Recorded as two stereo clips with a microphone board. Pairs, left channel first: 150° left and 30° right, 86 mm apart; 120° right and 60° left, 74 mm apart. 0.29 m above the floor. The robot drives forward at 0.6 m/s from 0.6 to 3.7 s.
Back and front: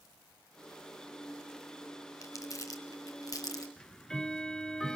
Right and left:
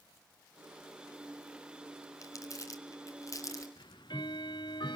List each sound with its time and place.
2.2 s crumpling: 160° right, 2.5 m; by 3.7 s 165° right, 3.5 m
3.8 s ticking: 125° right, 0.8 m